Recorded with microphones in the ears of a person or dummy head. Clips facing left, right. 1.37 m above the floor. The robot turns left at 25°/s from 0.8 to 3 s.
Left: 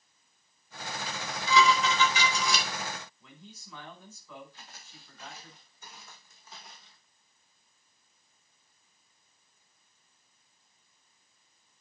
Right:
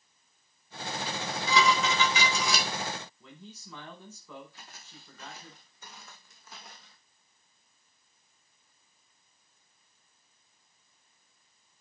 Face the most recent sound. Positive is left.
turn(degrees=-50)  # may be behind; listen again after turning